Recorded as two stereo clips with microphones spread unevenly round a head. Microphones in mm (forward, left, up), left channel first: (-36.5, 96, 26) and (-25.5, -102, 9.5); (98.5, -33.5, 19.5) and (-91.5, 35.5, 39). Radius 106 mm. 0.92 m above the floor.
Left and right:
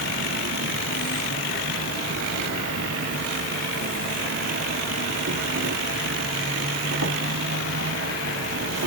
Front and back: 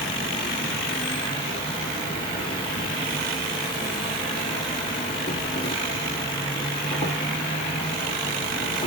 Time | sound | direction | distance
0.0 | an insect | 85° right | 0.8 m